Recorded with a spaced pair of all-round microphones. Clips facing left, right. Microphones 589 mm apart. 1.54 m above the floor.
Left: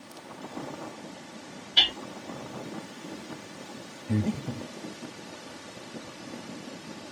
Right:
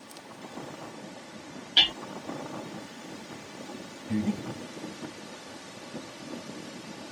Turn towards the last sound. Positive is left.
turn(degrees=65)  # may be behind; listen again after turning